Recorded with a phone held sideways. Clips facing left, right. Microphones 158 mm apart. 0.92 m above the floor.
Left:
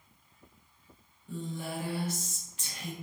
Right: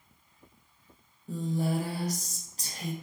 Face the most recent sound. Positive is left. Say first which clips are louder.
# right 7 dB
turn(degrees=-40)  # may be behind; listen again after turning